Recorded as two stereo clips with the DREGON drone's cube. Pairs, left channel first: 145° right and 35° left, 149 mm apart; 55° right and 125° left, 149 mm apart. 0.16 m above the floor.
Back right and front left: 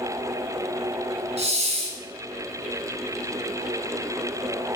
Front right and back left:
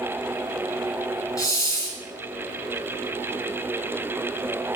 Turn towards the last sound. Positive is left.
turn(degrees=5)